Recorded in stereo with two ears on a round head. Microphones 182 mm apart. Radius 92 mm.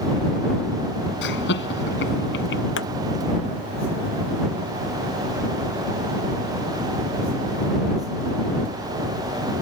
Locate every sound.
1.2 s laughter: 65° left (ahead or behind)
2.8 s a pop: 60° left (ahead or behind)